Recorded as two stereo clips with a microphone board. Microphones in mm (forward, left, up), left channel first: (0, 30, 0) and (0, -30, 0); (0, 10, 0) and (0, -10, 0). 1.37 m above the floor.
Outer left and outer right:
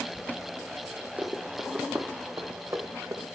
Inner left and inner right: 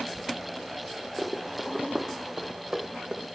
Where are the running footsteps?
25° right (ahead or behind), 3 m; by 3.3 s 55° right (ahead or behind), 2.5 m.